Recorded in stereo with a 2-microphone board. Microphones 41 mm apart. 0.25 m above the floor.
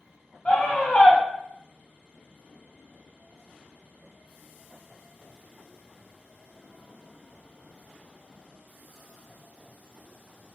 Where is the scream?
25° left (ahead or behind), 1.2 m.